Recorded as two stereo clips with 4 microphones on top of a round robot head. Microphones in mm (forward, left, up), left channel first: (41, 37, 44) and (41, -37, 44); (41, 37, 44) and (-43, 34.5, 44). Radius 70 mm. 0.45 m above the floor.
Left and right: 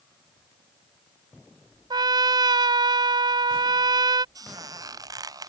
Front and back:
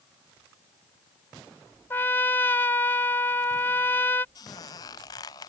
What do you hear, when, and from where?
1.9 s a trumpet: 70° right
4.3 s a squeak: 55° right